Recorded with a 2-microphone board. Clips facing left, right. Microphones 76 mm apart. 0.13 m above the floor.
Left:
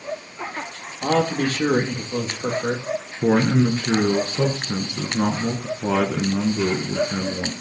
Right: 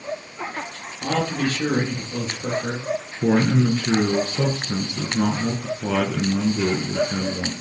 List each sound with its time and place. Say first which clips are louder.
1.0 s a man speaking: left 3 dB; 45° left (ahead or behind), 3 m
3.2 s a man speaking: left 1 dB; 20° left (ahead or behind), 1.3 m